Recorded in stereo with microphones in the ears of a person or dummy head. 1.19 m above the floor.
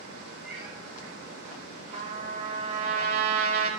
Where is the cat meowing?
Centre (ahead or behind), 4 m.